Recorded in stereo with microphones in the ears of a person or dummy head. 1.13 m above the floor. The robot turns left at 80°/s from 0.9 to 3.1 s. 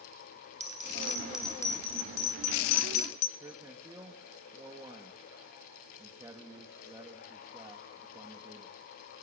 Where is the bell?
40° right (ahead or behind), 2.5 m; by 3.3 s 45° left (ahead or behind), 2.5 m.